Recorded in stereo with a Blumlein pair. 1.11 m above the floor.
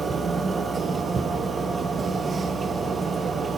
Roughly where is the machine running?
Ahead.